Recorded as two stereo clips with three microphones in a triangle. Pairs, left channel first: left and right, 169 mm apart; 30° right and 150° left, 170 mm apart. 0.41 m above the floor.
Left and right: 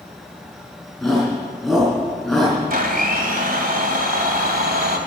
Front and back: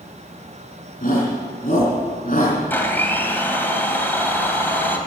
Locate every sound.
1.0 s a shout: straight ahead, 4.5 m
2.7 s a blender: 105° right, 2.0 m